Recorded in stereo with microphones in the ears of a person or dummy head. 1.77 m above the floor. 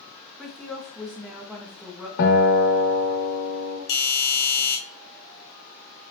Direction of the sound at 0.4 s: 5° left (ahead or behind).